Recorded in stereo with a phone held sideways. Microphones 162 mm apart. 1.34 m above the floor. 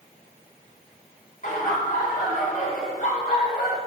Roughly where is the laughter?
Left.